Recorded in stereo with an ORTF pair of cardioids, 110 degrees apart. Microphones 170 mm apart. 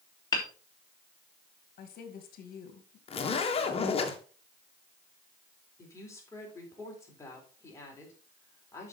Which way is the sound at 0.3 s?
25° left.